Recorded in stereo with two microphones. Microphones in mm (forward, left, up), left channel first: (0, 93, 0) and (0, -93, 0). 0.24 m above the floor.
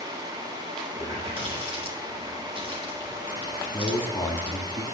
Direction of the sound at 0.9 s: 30° right (ahead or behind).